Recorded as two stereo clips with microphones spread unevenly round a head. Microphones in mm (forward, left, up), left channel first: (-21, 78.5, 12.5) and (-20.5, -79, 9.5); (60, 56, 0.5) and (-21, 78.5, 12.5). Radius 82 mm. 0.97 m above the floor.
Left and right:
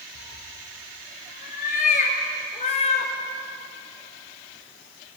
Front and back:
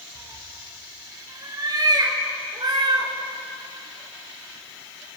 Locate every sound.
0.1 s a cat meowing: 115° left, 5.5 m; by 3.1 s 140° left, 3.5 m